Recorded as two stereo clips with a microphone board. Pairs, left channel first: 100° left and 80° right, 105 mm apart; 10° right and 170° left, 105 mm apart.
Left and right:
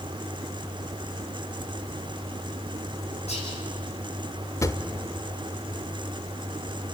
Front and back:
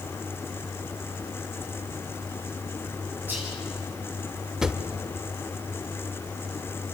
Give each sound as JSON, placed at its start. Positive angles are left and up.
{"t": 3.3, "sound": "whispering", "azimuth_deg": 95, "distance_m": 10.0}
{"t": 4.6, "sound": "a drawer", "azimuth_deg": 90, "distance_m": 1.3}